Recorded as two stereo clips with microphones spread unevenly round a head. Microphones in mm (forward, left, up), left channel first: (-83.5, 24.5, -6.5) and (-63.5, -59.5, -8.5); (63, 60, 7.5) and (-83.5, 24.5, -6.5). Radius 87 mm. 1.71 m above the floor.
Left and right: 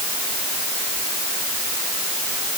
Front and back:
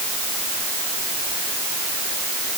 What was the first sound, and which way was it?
Only background noise.